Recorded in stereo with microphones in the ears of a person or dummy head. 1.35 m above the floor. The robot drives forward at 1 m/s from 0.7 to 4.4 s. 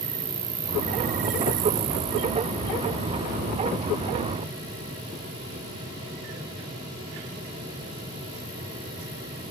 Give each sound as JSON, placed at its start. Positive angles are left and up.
{"t": 0.0, "sound": "an insect", "side_deg": -35, "distance_m": 1.1}